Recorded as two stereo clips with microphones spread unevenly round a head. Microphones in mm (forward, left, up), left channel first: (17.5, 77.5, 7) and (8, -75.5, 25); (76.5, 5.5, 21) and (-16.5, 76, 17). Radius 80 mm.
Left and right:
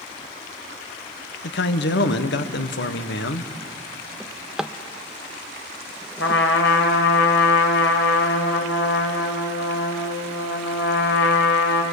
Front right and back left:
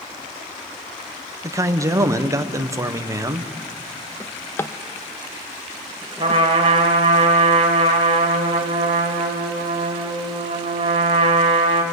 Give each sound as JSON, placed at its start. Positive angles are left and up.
{"t": 1.4, "sound": "a man speaking", "azimuth_deg": 80, "distance_m": 1.4}
{"t": 4.2, "sound": "a drawer", "azimuth_deg": -35, "distance_m": 0.8}
{"t": 6.2, "sound": "a trumpet", "azimuth_deg": 105, "distance_m": 3.0}